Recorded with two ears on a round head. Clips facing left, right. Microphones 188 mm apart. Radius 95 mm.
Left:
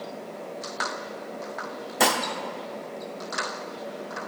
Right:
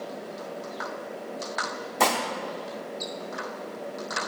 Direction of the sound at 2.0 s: 10° left (ahead or behind).